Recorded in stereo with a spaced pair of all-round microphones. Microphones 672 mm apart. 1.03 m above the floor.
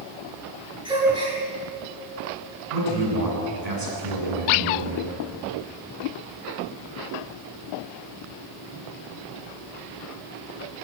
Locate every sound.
0.8 s a gasp: 5° right (ahead or behind), 9.5 m
2.7 s a man speaking: 75° right (ahead or behind), 9.5 m